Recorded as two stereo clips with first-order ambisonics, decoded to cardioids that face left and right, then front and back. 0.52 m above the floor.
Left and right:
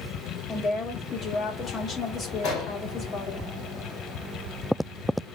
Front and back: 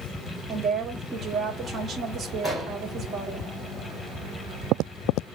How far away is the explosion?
About 3 m.